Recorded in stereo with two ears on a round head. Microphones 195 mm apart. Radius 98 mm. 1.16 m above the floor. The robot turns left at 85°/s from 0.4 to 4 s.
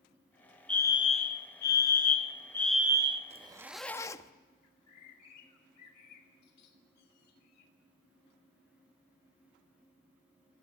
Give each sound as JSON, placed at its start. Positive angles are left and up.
{"t": 0.7, "sound": "a fire alarm", "azimuth_deg": 175, "distance_m": 1.4}
{"t": 3.3, "sound": "a zipper", "azimuth_deg": -140, "distance_m": 0.7}
{"t": 4.6, "sound": "a bird", "side_deg": 90, "distance_m": 3.0}